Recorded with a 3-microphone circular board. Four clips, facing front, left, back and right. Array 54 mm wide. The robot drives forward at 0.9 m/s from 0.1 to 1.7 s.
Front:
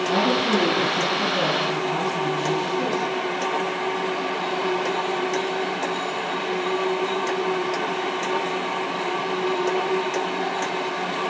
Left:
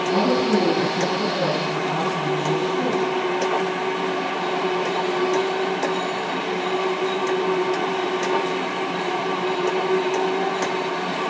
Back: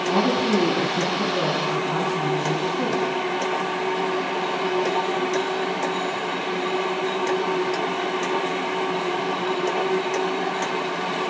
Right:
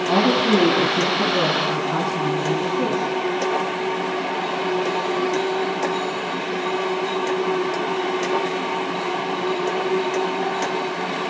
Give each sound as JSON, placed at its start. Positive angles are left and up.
{"t": 0.1, "sound": "a woman speaking", "azimuth_deg": -100, "distance_m": 4.5}